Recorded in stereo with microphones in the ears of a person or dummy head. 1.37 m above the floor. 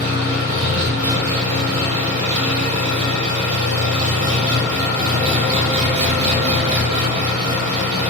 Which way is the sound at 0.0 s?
30° right (ahead or behind).